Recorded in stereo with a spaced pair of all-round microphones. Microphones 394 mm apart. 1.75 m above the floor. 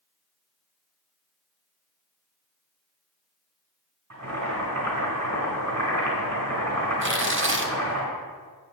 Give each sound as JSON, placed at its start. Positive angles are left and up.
{"t": 4.1, "sound": "boiling", "side_deg": -45, "distance_m": 4.0}
{"t": 7.0, "sound": "tearing paper", "side_deg": -30, "distance_m": 0.8}